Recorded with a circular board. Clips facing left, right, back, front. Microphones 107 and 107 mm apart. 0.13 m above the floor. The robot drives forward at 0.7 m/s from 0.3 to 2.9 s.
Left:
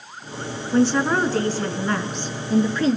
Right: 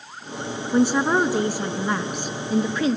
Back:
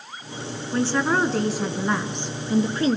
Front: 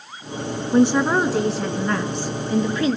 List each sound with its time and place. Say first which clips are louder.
0.7 s a woman speaking: even, front 5 dB; 30° right, 1.4 m; by 3.0 s 165° right, 1.7 m